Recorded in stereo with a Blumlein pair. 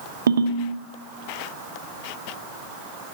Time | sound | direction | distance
0.3 | a ringtone | 70° right | 0.6 m